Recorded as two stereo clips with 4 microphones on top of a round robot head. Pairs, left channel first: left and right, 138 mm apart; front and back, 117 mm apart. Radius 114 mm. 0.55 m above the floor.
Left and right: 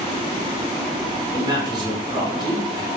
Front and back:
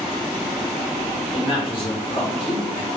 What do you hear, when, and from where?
1.3 s a man speaking: 35° right, 2.5 m